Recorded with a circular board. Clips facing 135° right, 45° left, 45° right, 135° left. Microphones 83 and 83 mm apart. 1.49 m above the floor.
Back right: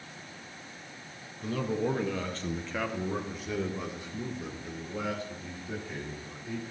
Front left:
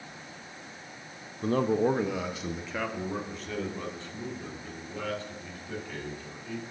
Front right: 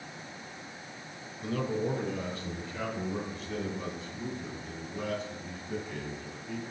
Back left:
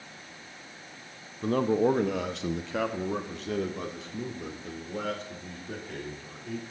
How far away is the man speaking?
About 0.7 m.